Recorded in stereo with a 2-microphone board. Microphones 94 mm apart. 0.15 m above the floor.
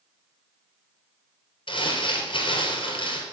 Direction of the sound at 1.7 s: 65° left (ahead or behind).